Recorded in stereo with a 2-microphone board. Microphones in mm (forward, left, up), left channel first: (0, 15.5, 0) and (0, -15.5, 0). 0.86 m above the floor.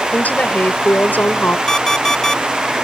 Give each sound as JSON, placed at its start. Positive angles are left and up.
{"t": 0.1, "sound": "a woman speaking", "side_deg": 65}
{"t": 1.7, "sound": "an alarm clock", "side_deg": 20}